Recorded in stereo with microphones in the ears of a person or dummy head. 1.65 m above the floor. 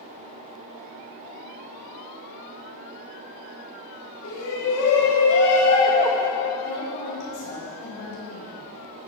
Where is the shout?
80° left, 2.5 m; by 6.3 s 10° left (ahead or behind), 1.3 m.